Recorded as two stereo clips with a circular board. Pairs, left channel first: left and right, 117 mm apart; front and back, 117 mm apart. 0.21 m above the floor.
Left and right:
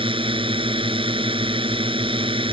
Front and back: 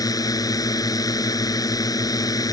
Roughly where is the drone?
Ahead right.